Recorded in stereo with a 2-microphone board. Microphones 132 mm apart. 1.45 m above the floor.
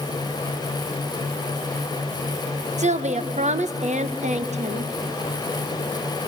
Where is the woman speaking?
60° right (ahead or behind), 1.1 m.